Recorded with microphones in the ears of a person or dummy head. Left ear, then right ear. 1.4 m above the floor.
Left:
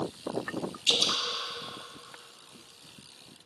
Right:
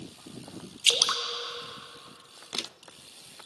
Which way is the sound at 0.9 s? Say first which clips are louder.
Right 2 dB; 50° right (ahead or behind).